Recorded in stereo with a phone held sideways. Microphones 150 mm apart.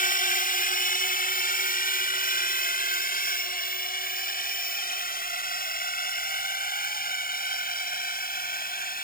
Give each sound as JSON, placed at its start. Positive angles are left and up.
{"t": 0.0, "sound": "a drone", "side_deg": 65}